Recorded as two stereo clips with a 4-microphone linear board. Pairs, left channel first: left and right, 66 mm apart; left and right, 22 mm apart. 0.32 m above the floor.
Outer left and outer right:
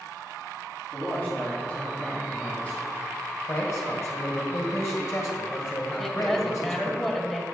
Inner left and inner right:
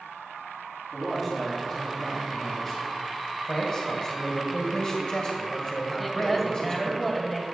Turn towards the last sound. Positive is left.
turn(degrees=10)  # may be behind; listen again after turning